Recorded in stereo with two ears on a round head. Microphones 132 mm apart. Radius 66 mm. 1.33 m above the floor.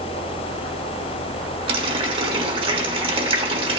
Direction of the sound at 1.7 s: 35° right (ahead or behind).